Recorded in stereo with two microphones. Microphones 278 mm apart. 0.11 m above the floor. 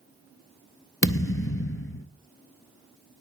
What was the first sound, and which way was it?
A thud, 50° left (ahead or behind).